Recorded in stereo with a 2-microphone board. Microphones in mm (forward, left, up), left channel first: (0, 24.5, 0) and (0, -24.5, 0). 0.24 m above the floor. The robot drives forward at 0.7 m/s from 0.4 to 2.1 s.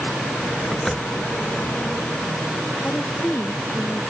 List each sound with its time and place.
0.7 s a door slam: 10° left (ahead or behind)
2.8 s a woman speaking: 35° left (ahead or behind)